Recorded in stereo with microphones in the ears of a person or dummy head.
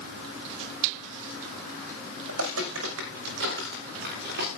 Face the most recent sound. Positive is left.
turn(degrees=-55)  # may be behind; listen again after turning